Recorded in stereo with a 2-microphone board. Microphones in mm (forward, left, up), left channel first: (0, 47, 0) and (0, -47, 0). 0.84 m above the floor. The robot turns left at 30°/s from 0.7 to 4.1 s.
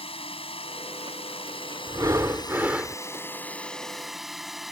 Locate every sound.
0.0 s a drone: 100° left; by 4.7 s straight ahead
1.9 s breathing: 140° right; by 3.0 s 170° right